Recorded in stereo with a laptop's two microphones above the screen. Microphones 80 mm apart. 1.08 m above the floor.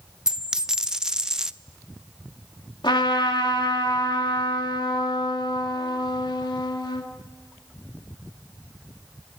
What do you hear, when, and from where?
0.3 s a dropped coin: 10° right (ahead or behind), 0.6 m
2.8 s a trumpet: 75° left (ahead or behind), 2.5 m